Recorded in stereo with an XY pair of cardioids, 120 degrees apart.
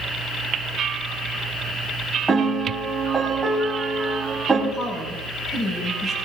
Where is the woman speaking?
30° left, 6 m.